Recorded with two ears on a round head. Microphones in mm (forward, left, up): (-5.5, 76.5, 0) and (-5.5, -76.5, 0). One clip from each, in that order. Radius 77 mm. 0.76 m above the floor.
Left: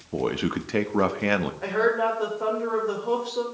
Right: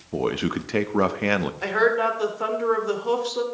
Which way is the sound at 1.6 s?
60° right (ahead or behind).